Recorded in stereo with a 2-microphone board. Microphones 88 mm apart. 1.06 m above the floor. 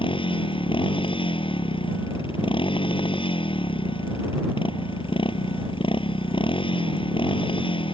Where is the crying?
No crying in this recording.